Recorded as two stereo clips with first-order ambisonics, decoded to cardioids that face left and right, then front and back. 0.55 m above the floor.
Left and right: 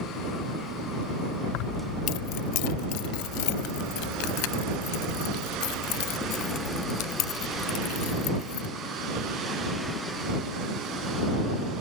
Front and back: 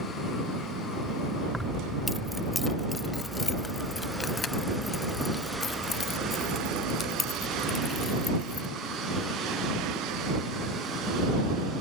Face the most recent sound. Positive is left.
turn(degrees=65)